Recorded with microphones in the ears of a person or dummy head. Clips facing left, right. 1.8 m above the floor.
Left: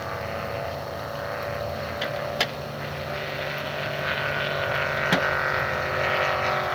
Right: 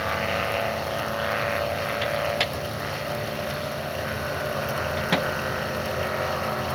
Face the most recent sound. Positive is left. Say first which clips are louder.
# right 2 dB
turn(degrees=5)  # may be behind; listen again after turning